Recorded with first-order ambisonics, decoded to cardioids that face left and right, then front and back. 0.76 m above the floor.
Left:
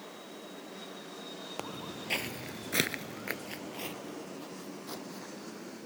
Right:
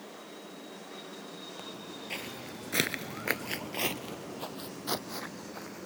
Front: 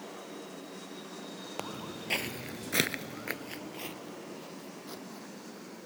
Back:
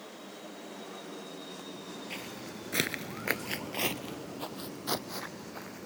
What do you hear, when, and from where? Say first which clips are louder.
1.6 s footsteps: left 2 dB, front 3 dB; 35° left; by 5.9 s 140° right